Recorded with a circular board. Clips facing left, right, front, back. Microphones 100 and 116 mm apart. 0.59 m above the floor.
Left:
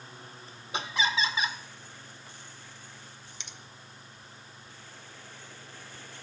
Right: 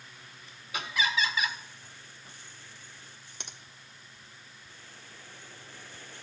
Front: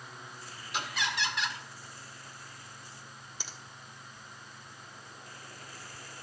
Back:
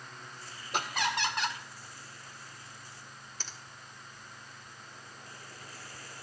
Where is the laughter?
145° left, 1.5 m.